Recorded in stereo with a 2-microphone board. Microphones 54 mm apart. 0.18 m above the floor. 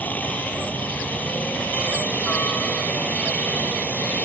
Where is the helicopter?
30° left (ahead or behind).